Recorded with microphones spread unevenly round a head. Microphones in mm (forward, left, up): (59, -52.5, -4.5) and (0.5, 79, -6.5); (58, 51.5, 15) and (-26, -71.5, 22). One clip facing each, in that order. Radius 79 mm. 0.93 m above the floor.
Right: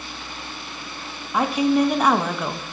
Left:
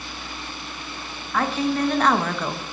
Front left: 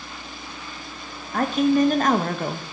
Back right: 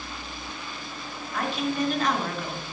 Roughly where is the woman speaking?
Ahead.